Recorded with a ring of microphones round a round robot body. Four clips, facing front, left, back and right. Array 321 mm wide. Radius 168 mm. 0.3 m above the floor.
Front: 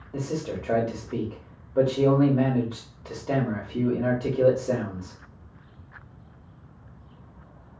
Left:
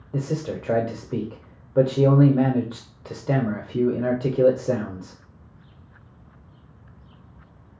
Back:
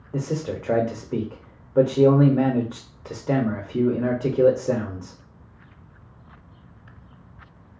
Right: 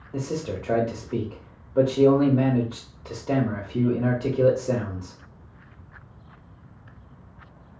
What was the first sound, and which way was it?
A man speaking, 140° left.